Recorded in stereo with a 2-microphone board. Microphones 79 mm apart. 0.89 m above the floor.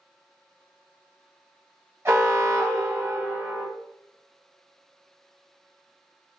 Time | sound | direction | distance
2.0 | an alarm | 35° right (ahead or behind) | 1.1 m